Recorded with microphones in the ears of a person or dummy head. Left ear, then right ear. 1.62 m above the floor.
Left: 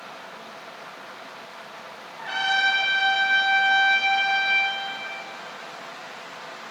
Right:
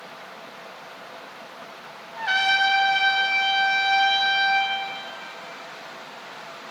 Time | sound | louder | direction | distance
2.2 | a trumpet | right 3 dB | 75° right (ahead or behind) | 0.9 m